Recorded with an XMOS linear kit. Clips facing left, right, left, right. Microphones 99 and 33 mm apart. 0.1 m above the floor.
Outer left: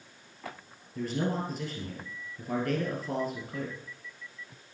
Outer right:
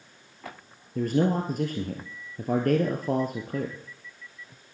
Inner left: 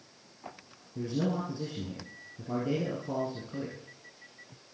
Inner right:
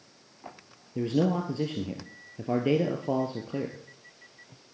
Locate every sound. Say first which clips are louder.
0.9 s a man speaking: outer right 7 dB, inner right 5 dB; 50° right (ahead or behind), 1.9 m